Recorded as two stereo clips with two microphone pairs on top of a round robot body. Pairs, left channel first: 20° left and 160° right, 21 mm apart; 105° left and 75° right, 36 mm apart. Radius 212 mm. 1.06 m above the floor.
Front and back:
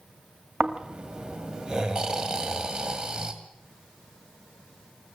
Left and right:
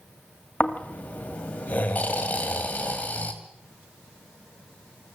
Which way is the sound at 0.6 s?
150° left.